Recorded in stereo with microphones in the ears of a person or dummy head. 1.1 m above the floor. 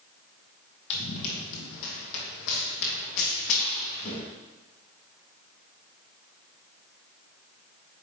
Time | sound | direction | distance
0.9 | running footsteps | 65° left (ahead or behind) | 2.5 m